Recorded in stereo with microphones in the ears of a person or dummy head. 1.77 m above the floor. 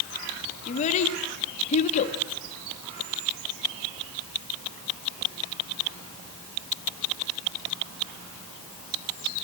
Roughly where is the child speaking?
Left.